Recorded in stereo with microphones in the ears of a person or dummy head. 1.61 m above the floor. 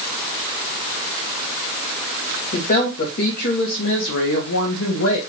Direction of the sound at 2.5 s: 30° left (ahead or behind).